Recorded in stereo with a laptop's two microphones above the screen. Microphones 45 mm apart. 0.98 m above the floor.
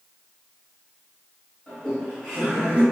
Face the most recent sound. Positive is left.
turn(degrees=-30)  # may be behind; listen again after turning